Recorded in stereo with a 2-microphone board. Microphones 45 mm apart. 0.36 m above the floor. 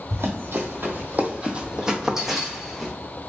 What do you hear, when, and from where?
0.1 s running footsteps: 70° right (ahead or behind), 0.8 m; by 2.9 s 5° left (ahead or behind), 1.3 m